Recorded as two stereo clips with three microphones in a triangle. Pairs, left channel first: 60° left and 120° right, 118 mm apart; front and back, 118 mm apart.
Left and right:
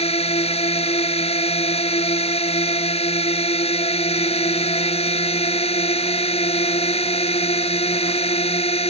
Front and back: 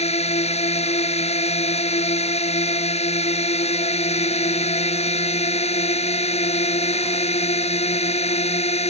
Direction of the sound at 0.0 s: 25° left.